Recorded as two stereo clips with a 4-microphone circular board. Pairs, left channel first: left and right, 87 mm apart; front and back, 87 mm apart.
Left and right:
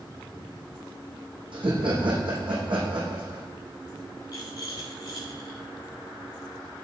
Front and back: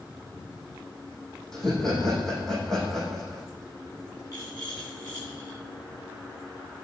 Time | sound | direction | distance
1.5 | laughter | 85° right | 7 m
4.3 | a rattle | 50° left | 8.5 m